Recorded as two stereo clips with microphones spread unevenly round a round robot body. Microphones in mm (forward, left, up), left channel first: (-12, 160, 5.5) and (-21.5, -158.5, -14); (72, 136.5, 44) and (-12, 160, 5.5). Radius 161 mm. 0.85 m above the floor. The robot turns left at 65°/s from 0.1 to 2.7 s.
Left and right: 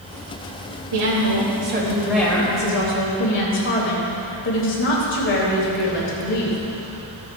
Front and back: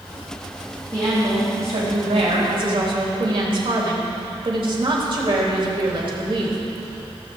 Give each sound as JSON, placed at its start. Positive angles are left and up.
{"t": 0.9, "sound": "a woman speaking", "azimuth_deg": -100, "distance_m": 3.5}